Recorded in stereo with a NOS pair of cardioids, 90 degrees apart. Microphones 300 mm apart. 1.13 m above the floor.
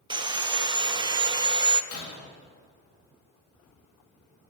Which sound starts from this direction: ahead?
Sawing, at 0.1 s.